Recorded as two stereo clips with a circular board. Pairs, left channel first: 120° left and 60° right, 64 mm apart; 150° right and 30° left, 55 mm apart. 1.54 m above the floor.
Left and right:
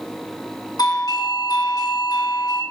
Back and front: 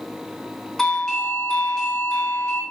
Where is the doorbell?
130° left, 2.5 m.